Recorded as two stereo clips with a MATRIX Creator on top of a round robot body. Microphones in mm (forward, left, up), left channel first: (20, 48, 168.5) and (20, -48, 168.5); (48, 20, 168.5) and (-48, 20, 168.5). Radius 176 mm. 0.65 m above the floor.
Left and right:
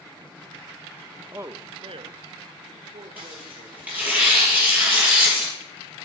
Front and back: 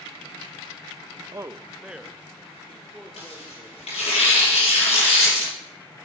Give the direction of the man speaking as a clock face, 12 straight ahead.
5 o'clock.